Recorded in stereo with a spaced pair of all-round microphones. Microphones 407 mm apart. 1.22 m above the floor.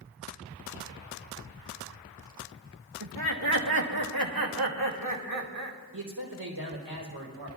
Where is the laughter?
60° right (ahead or behind), 1.8 m; by 5.8 s 45° right (ahead or behind), 3 m.